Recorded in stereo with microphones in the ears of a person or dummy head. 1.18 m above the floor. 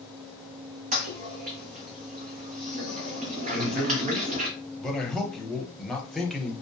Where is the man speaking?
Centre (ahead or behind), 0.6 m.